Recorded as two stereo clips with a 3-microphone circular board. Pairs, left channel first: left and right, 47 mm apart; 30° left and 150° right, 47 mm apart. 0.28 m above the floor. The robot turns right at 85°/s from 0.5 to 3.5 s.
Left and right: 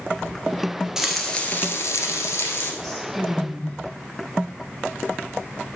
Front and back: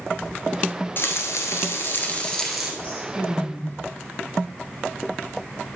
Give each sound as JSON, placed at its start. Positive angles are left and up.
{"t": 1.0, "sound": "frying", "azimuth_deg": -10, "distance_m": 1.3}
{"t": 2.8, "sound": "a woman speaking", "azimuth_deg": 0, "distance_m": 1.2}